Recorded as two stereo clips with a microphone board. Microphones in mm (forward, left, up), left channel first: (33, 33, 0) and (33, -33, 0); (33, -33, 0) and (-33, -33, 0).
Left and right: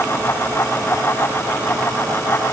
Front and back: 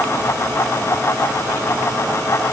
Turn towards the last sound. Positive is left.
No sound to turn to.